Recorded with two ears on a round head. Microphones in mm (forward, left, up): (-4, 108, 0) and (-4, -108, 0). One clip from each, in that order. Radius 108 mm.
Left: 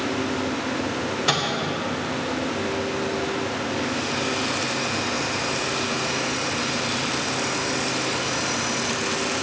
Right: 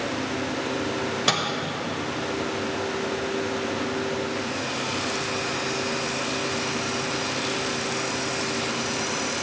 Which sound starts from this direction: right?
A microwave, at 1.3 s.